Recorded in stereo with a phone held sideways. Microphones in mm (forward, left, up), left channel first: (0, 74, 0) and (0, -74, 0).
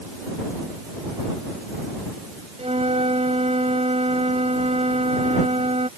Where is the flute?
45° right (ahead or behind).